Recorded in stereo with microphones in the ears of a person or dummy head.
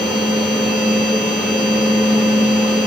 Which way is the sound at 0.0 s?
10° right (ahead or behind).